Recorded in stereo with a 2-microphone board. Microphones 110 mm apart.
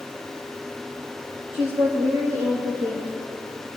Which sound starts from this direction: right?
A woman speaking, at 1.5 s.